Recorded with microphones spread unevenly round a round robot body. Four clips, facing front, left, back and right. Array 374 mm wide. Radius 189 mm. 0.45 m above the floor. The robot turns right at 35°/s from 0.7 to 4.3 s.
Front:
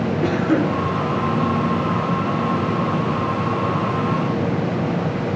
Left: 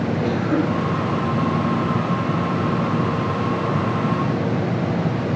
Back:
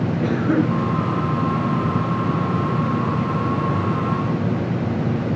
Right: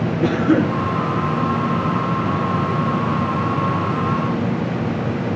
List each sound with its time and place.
0.2 s a cough: 105° right, 8.5 m; by 0.8 s 100° right, 8.5 m